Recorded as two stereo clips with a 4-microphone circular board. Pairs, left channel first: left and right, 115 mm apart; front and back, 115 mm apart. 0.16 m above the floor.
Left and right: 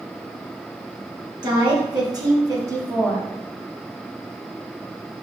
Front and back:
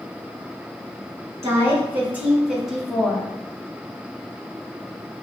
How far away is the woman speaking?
About 2 m.